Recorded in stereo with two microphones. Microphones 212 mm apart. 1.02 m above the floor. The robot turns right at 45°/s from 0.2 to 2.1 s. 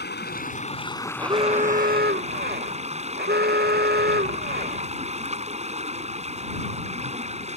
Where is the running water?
125° left; by 7.6 s 150° right.